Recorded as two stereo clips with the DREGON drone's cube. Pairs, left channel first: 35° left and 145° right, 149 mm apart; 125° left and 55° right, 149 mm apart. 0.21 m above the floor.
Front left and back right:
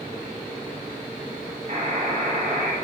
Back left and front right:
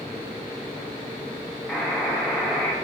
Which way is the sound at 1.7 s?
155° right.